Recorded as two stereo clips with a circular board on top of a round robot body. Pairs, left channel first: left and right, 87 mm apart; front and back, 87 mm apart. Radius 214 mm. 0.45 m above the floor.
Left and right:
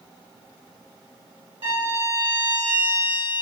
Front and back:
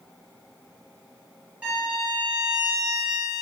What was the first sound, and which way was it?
A violin, 105° right.